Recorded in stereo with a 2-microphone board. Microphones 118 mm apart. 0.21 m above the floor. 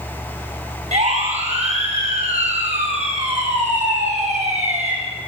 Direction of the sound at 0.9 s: 75° right (ahead or behind).